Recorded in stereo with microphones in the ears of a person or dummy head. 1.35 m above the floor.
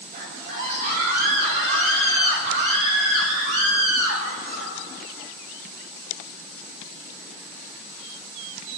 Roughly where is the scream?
Right.